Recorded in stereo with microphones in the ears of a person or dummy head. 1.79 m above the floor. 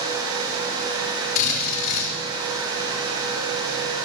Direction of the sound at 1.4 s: 65° left (ahead or behind).